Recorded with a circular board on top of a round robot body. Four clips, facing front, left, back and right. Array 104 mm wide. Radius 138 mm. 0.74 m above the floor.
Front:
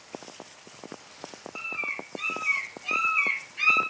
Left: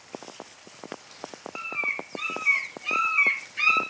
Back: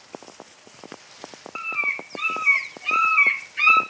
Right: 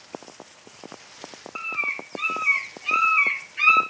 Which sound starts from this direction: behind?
A bird, at 1.6 s.